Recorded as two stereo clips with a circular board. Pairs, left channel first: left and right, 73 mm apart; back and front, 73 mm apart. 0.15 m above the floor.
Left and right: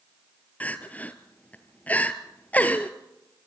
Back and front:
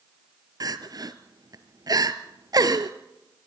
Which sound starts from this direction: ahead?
Crying, at 0.6 s.